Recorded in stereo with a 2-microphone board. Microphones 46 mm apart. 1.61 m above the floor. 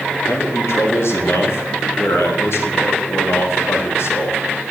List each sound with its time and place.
0.2 s a man speaking: 70° left (ahead or behind), 3.5 m